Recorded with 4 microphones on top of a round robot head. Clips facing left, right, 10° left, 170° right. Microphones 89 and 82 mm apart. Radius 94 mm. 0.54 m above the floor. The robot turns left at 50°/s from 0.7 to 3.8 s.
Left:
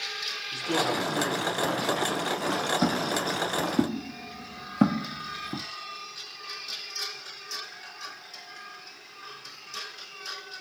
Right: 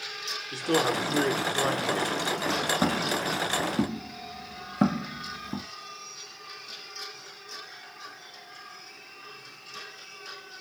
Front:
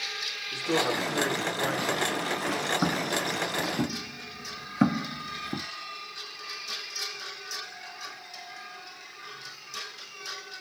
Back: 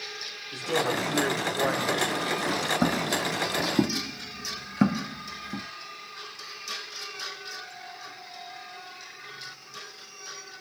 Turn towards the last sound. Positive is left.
turn(degrees=0)